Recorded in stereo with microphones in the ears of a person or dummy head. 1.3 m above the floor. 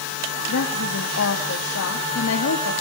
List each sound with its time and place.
0.5 s a woman speaking: 75° left (ahead or behind), 1.8 m